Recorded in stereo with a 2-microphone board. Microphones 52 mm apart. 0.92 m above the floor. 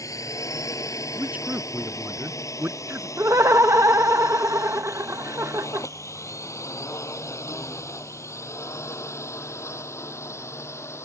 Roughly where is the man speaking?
Right.